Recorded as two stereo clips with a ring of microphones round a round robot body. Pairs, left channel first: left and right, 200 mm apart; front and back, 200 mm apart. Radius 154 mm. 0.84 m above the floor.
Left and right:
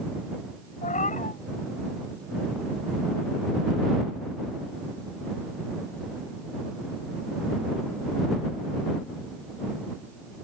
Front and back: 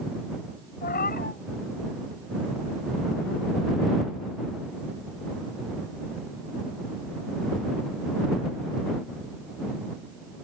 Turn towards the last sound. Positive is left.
turn(degrees=40)